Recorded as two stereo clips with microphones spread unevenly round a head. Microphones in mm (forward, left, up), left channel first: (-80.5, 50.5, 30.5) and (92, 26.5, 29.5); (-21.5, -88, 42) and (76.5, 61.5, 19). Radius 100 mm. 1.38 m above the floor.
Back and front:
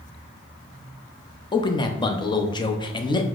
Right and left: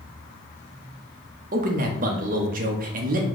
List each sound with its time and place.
1.5 s a man speaking: 105° left, 0.6 m